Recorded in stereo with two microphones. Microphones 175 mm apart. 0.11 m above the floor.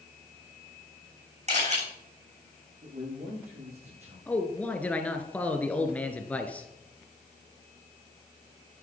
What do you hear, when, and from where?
1.5 s a camera shutter: 45° right (ahead or behind), 7.5 m
2.8 s a man speaking: 75° right (ahead or behind), 9 m
4.3 s a man speaking: 10° left (ahead or behind), 1.7 m